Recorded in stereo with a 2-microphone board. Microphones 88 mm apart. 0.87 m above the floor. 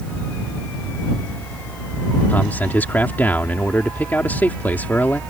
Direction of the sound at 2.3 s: 20° left (ahead or behind).